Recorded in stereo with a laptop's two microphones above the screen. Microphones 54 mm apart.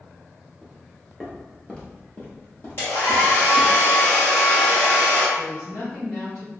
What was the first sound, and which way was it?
Footsteps, 10° right (ahead or behind).